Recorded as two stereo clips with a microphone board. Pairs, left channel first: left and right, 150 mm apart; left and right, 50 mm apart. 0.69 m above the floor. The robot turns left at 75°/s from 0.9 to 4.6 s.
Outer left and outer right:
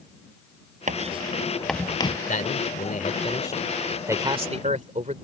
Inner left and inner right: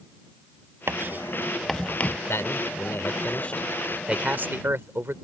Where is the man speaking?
115° left; by 5.2 s 60° right.